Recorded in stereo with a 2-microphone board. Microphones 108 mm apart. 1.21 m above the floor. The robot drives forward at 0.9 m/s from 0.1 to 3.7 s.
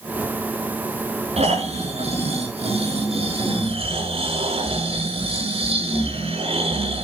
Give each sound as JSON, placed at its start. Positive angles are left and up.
{"t": 1.4, "sound": "snoring", "side_deg": -80, "distance_m": 5.5}